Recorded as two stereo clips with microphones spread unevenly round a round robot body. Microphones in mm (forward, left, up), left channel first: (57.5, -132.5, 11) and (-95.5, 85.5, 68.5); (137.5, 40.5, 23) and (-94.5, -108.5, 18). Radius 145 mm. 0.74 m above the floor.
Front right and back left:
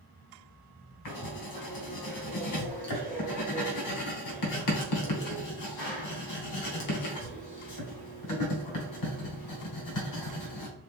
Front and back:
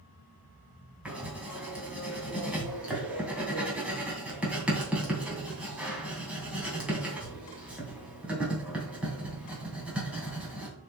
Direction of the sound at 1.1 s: 60° right.